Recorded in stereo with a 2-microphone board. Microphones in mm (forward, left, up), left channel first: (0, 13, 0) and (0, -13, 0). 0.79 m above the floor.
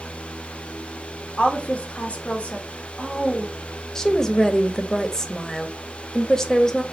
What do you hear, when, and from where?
1.4 s a woman speaking: 55° left (ahead or behind), 1.3 m
4.0 s a woman speaking: 20° left (ahead or behind), 0.7 m